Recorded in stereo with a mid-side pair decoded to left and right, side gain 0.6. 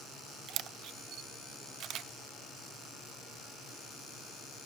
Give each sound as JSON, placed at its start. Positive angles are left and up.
{"t": 0.5, "sound": "a camera shutter", "azimuth_deg": -55, "distance_m": 0.5}